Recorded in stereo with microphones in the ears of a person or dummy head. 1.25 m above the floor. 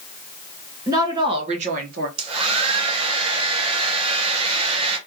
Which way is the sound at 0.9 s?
20° right (ahead or behind).